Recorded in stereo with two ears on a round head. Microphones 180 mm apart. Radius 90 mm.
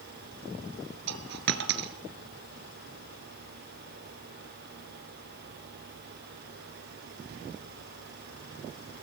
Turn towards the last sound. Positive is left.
turn(degrees=-55)  # may be behind; listen again after turning